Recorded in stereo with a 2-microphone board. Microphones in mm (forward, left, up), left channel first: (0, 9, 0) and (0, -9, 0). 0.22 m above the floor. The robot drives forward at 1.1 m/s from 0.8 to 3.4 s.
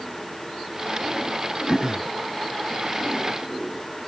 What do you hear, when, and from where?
1.7 s throat clearing: 25° left (ahead or behind)